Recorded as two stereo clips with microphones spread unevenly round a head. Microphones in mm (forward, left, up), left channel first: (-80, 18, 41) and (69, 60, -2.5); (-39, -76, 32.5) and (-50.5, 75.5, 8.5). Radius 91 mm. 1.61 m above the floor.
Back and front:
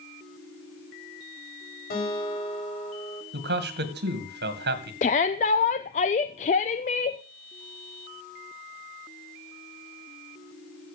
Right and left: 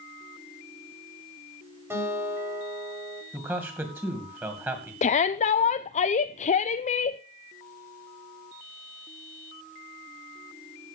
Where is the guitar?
170° left, 5 m.